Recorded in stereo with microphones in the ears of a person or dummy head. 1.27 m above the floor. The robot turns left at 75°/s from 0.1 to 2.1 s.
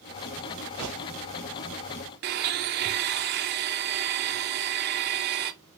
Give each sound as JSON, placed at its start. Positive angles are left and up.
{"t": 0.8, "sound": "a gunshot", "side_deg": -75, "distance_m": 1.5}
{"t": 2.2, "sound": "a blender", "side_deg": -50, "distance_m": 0.6}